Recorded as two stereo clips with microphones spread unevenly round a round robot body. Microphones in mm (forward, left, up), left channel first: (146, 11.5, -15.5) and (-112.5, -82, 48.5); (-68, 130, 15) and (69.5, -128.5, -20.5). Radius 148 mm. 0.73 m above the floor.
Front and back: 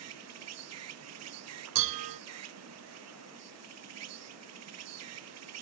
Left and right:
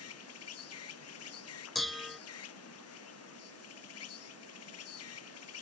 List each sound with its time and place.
0.0 s an insect: 160° left
1.8 s dishes clattering: 155° right